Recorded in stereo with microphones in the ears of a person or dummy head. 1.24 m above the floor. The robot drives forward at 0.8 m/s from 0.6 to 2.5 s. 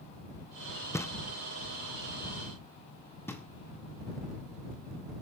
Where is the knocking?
5° left (ahead or behind), 0.6 m; by 5.2 s centre (ahead or behind), 1.9 m.